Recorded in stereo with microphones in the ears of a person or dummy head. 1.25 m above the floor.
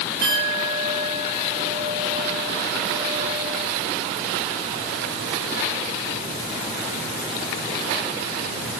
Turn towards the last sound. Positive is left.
turn(degrees=-55)  # may be behind; listen again after turning